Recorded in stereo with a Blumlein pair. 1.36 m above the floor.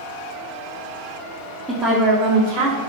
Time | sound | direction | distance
1.7 | a woman speaking | 5° right | 0.6 m